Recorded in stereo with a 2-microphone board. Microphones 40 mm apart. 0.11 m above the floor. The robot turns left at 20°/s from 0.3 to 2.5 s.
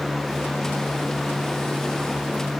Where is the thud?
I don't hear a thud.